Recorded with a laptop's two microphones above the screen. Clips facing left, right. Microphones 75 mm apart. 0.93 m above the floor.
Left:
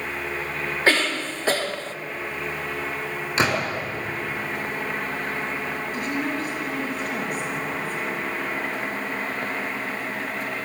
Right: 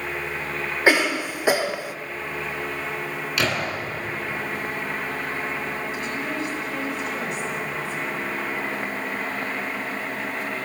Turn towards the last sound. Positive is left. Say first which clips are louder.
# left 2 dB
turn(degrees=45)  # may be behind; listen again after turning